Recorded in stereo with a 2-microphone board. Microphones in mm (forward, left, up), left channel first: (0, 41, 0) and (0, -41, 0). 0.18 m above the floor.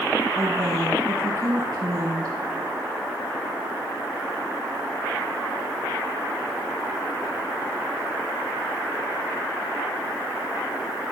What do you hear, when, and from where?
0.3 s a woman speaking: 40° right (ahead or behind), 4.5 m